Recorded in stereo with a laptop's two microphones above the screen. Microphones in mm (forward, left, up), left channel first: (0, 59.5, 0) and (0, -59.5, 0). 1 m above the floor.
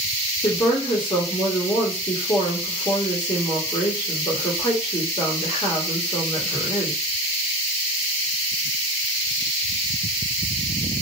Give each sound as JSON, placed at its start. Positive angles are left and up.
{"t": 0.4, "sound": "a woman speaking", "side_deg": 30, "distance_m": 1.8}